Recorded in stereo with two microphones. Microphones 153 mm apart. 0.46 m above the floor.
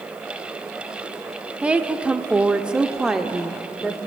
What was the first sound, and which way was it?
A woman speaking, 10° right (ahead or behind).